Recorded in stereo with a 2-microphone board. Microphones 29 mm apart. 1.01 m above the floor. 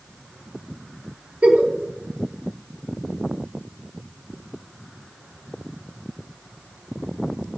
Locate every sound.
1.4 s a giggle: 60° right (ahead or behind), 1.0 m